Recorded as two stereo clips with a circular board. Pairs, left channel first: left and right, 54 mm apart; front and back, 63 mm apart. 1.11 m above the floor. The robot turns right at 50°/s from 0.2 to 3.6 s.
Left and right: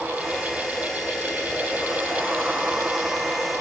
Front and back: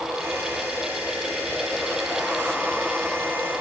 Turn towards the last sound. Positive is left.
No sound to turn to.